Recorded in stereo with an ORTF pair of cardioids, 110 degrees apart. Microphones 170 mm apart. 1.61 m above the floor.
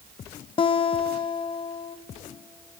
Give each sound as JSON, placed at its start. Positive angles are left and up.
{"t": 0.6, "sound": "a guitar", "azimuth_deg": 35, "distance_m": 1.3}